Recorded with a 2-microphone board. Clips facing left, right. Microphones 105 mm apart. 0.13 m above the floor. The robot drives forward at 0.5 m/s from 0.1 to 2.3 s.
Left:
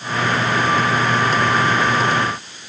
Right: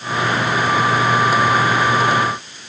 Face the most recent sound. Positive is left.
No sound to turn to.